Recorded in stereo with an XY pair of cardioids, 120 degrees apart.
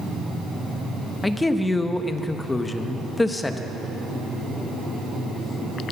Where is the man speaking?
15° left, 0.9 m.